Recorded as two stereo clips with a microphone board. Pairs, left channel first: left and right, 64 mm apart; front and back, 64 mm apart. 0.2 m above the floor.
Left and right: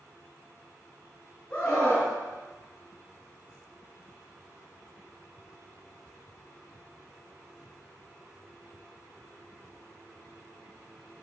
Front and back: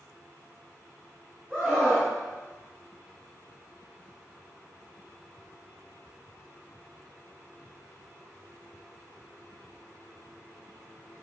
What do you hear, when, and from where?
1.5 s a scream: 140° left, 1.4 m